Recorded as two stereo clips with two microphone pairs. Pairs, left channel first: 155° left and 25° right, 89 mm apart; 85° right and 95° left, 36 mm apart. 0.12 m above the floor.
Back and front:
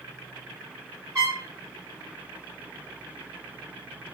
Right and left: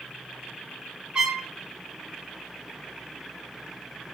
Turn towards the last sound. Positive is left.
turn(degrees=35)